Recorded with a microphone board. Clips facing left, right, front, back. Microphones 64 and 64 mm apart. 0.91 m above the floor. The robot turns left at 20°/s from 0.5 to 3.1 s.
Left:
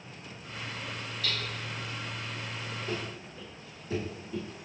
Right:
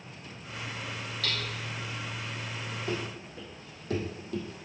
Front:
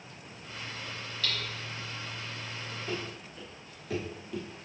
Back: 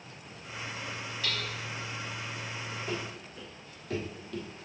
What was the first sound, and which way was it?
Hammering, 110° right.